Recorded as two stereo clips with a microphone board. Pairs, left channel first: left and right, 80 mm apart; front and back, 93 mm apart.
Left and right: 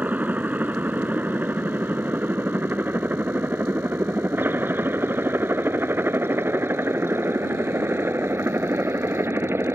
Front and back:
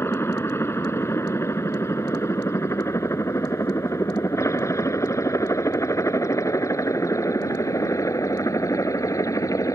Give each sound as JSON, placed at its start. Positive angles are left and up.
{"t": 0.0, "sound": "a helicopter", "azimuth_deg": -35}